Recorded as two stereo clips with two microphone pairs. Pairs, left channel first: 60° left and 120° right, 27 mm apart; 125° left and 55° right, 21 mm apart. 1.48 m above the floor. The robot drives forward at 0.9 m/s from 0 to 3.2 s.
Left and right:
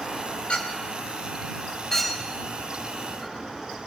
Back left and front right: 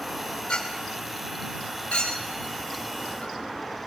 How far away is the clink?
About 2 m.